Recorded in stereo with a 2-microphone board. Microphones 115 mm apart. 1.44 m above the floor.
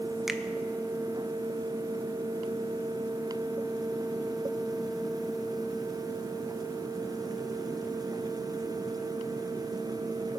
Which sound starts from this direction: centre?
A finger snap, at 0.3 s.